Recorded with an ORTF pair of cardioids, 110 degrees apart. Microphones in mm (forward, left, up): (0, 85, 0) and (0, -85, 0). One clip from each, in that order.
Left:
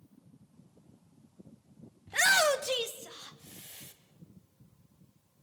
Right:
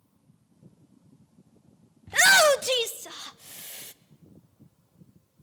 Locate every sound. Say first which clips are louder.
2.1 s a shout: right 7 dB; 25° right, 0.6 m; by 3.9 s 45° right, 1.7 m